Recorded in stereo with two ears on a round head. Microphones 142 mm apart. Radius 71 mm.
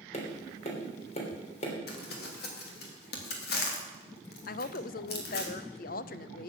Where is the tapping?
40° left (ahead or behind), 3 m.